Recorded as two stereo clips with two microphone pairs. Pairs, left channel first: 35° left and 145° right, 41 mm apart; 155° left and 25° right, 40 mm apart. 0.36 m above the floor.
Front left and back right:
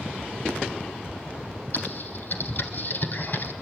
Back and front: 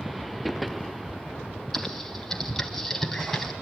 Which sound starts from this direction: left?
Typing on a keyboard, at 1.7 s.